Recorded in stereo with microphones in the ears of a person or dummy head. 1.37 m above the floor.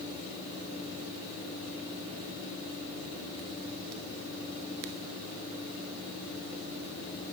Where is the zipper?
I don't hear a zipper.